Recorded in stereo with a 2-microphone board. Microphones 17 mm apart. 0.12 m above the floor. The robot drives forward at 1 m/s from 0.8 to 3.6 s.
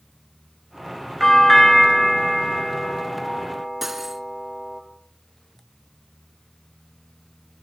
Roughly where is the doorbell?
Centre.